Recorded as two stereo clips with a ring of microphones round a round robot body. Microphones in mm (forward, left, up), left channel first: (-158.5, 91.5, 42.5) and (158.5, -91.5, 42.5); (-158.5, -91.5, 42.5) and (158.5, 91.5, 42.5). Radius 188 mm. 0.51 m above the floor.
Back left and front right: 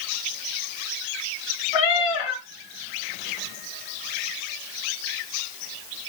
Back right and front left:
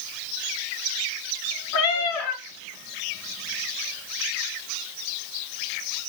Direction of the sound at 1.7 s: 165° left.